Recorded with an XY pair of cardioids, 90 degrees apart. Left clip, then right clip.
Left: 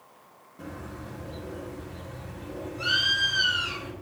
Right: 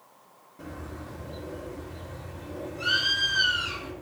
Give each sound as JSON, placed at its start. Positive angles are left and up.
{"t": 0.6, "sound": "a bird", "azimuth_deg": 15, "distance_m": 2.5}